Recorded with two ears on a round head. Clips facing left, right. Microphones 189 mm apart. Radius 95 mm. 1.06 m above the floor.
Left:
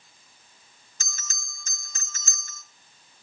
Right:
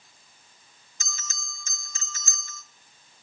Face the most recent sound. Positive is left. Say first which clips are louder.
# right 3 dB
turn(degrees=40)  # may be behind; listen again after turning